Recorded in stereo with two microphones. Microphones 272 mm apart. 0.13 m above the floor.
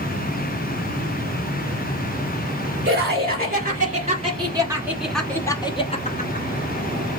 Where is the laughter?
40° right (ahead or behind), 1.8 m; by 6.5 s 35° left (ahead or behind), 1.2 m.